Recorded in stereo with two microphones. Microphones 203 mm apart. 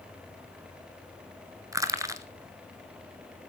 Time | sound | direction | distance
1.7 | crushing | 15° right (ahead or behind) | 0.9 m